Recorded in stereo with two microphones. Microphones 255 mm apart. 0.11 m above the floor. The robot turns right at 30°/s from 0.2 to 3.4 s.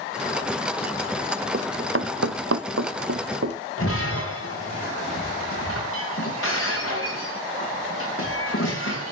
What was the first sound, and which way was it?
Running footsteps, 45° right (ahead or behind).